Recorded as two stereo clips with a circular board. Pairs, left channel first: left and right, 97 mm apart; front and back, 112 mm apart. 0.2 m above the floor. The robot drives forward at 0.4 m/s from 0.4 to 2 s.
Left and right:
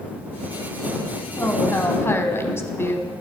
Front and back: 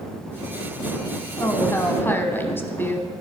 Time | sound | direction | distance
1.4 | a woman speaking | 40° left | 1.8 m